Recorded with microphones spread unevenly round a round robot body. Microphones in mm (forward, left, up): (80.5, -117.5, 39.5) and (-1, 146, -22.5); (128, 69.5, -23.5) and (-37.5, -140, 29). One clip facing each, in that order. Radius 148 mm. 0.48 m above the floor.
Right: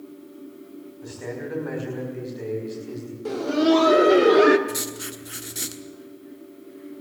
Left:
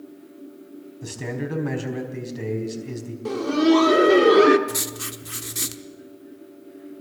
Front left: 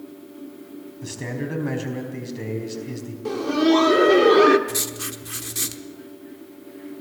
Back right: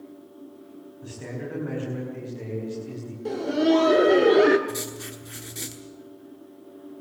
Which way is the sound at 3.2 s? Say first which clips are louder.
Left 2 dB, front left 3 dB; 75° left.